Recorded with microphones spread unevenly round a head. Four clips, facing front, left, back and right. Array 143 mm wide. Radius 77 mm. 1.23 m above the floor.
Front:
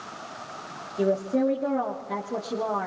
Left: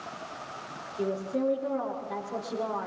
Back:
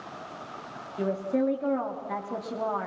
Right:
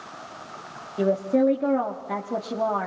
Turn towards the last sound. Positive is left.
turn(degrees=-90)